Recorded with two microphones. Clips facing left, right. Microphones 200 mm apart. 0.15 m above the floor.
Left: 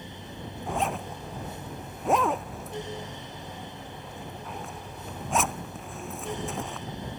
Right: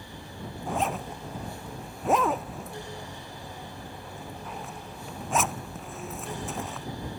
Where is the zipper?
Centre (ahead or behind).